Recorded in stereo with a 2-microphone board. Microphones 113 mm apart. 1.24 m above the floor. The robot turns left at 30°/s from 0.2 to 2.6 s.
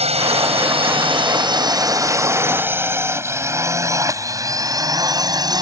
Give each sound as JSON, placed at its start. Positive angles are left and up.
{"t": 0.0, "sound": "a drone", "side_deg": -70}